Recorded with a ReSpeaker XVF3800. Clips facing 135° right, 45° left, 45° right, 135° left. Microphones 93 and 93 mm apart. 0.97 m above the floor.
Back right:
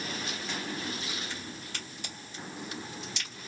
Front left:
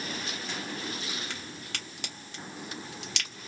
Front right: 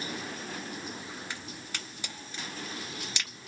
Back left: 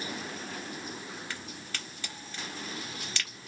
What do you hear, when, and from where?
1.3 s a crack: 30° left, 1.0 m